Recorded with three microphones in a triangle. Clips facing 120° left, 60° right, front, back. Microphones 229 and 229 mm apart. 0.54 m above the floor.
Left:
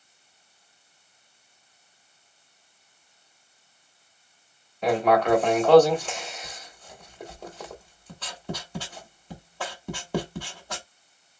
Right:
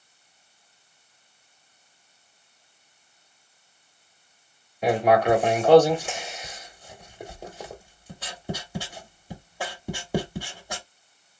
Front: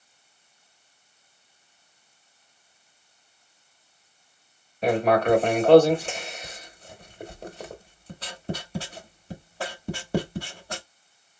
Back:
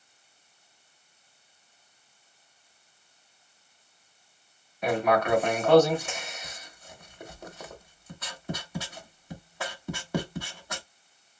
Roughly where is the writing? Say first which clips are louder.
Right 1 dB, front 4 dB; ahead.